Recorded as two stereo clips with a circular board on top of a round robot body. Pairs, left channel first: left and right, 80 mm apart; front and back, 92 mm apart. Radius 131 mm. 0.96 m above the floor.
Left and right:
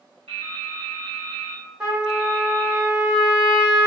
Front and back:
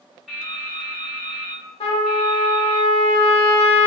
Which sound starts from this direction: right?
Dripping, at 0.3 s.